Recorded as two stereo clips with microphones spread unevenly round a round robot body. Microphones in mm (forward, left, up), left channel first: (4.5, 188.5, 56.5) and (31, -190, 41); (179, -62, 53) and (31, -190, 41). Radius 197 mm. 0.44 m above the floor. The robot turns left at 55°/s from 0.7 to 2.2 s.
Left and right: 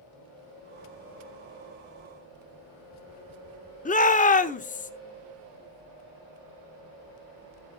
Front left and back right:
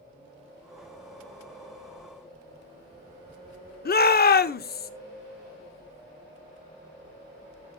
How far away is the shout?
About 1.0 m.